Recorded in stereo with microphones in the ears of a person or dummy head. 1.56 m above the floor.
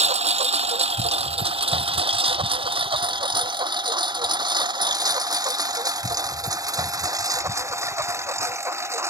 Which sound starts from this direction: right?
A lawn mower, at 0.0 s.